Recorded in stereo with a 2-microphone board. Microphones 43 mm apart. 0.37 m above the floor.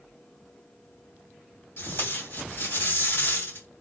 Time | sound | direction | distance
1.8 | tape being pulled | 60° left (ahead or behind) | 2.5 m